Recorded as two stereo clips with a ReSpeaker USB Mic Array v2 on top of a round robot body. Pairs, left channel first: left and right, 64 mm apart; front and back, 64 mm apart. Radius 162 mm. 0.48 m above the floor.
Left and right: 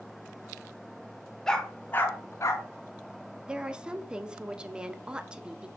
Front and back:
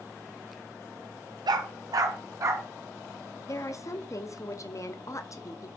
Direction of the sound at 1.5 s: 175° left.